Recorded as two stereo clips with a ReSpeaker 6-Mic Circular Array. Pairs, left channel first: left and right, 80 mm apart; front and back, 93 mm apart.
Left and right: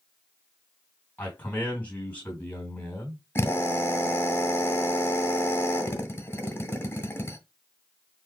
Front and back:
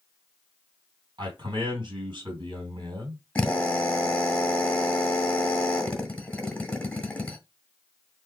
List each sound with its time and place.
1.2 s a man speaking: 155° left, 3 m
3.4 s a drill: 65° left, 1.3 m